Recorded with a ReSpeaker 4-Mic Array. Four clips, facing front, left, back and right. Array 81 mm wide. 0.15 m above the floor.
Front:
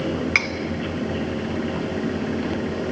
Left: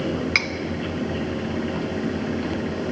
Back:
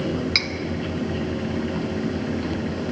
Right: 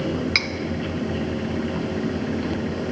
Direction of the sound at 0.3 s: 20° left.